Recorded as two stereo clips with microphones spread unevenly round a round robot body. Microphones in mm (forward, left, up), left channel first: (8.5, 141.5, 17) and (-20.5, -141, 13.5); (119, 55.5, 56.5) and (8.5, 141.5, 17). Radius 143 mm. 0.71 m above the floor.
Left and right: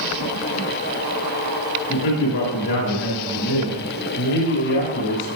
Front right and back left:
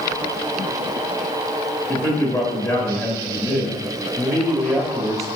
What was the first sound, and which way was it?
A man speaking, 60° left.